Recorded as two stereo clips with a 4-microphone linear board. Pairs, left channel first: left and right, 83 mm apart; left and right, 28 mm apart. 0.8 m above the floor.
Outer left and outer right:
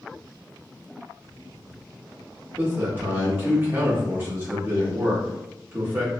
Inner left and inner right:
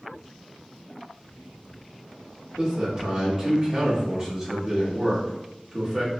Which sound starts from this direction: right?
A man speaking, at 2.6 s.